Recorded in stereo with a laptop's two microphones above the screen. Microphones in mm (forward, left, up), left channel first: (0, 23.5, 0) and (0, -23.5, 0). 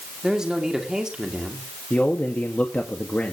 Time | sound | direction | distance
0.2 | a man speaking | 15° right (ahead or behind) | 2 m
1.9 | a man speaking | 30° left (ahead or behind) | 1.8 m